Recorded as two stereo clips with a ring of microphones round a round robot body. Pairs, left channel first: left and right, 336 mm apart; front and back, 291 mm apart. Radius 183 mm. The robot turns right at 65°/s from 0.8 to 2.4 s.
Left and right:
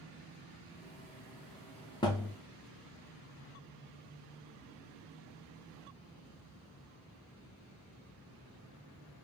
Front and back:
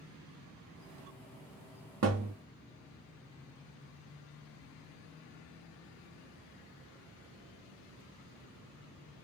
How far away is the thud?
About 0.5 m.